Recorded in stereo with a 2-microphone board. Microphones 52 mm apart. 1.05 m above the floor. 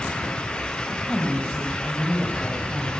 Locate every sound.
0.9 s a woman speaking: 15° left (ahead or behind), 5.5 m; by 2.9 s 45° left (ahead or behind), 4.5 m